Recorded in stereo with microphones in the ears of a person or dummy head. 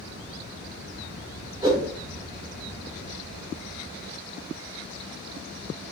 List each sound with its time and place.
1.6 s a whoosh: 20° right (ahead or behind), 0.7 m